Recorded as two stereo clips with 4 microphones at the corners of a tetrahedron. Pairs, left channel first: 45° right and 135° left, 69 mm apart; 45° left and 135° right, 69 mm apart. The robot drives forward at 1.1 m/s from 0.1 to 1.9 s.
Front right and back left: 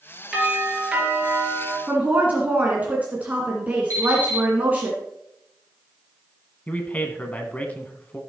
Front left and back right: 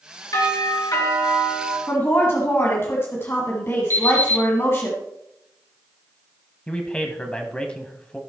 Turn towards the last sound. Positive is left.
turn(degrees=-10)